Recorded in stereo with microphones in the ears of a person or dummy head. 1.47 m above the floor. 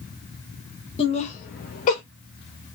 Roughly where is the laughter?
Left.